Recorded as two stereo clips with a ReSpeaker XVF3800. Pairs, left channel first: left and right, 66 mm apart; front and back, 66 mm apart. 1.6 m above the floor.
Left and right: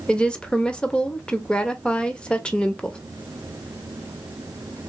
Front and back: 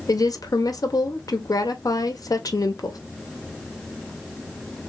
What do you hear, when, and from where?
0.1 s a woman speaking: 15° left, 0.7 m